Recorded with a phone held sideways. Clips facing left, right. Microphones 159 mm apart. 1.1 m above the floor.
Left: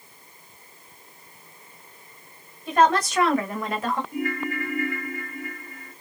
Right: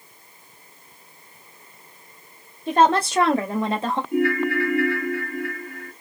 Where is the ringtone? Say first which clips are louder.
Right 7 dB; 80° right, 1.2 m.